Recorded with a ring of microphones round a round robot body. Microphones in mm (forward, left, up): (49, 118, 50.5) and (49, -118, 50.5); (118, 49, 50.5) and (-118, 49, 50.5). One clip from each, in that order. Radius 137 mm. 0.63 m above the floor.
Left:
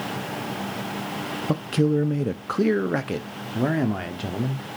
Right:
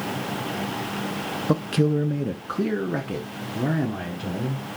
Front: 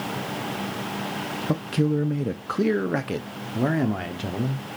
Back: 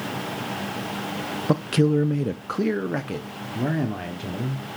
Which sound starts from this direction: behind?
A man speaking, at 1.5 s.